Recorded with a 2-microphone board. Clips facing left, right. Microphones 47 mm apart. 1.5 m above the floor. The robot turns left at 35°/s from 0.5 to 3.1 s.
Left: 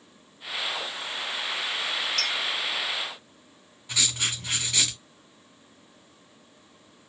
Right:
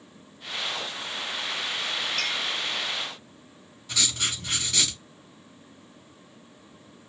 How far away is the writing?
About 2.5 m.